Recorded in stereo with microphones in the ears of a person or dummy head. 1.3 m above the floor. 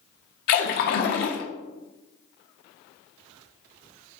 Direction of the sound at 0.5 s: 55° left (ahead or behind).